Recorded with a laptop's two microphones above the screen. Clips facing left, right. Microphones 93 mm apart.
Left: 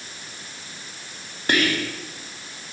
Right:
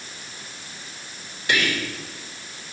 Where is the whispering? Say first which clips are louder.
Left 2 dB; 45° left (ahead or behind), 2.5 m.